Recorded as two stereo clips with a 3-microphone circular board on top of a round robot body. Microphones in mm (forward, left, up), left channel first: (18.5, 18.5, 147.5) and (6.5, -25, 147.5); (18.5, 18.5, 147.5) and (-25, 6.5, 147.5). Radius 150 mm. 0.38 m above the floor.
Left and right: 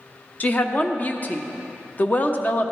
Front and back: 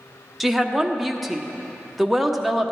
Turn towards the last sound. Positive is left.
turn(degrees=110)